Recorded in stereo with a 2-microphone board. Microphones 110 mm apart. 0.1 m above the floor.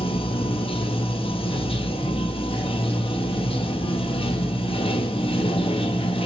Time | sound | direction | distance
0.0 | running water | 65° left (ahead or behind) | 1.2 m